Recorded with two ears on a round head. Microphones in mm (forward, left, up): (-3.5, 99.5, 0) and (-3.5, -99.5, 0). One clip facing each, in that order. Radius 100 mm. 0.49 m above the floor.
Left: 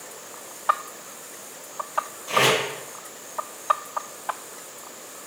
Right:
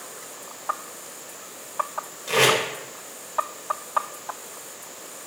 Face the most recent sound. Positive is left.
turn(degrees=-55)  # may be behind; listen again after turning